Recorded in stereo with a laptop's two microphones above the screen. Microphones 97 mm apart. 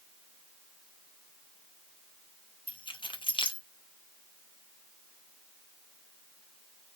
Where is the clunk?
No clunk in this recording.